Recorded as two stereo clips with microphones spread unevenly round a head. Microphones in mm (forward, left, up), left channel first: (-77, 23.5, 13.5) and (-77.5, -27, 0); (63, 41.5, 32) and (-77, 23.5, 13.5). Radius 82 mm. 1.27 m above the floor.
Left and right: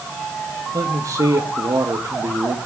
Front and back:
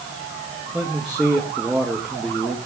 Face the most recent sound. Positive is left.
turn(degrees=-85)